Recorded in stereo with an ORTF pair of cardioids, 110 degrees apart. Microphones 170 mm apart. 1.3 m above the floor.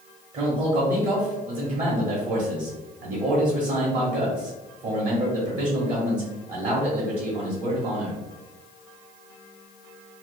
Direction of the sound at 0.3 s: 45° right.